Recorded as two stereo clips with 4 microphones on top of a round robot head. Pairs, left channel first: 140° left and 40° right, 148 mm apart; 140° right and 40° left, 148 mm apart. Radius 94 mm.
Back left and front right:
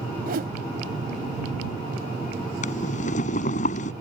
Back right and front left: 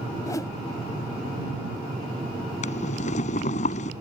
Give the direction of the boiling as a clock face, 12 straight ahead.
6 o'clock.